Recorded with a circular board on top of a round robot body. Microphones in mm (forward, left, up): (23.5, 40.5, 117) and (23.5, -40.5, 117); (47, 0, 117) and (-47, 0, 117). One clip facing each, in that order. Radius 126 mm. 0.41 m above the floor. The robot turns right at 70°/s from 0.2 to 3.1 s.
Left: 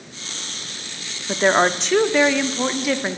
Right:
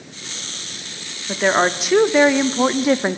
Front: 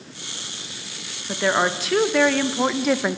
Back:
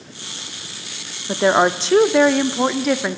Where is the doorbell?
No doorbell in this recording.